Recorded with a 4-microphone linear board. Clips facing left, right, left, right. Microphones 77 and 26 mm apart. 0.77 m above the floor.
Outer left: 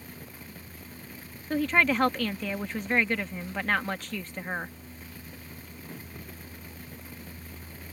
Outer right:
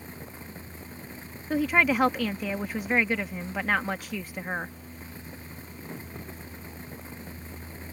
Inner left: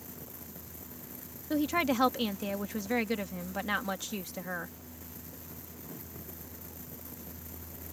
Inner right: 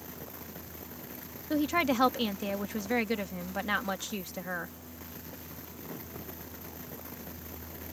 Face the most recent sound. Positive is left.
turn(degrees=-10)  # may be behind; listen again after turning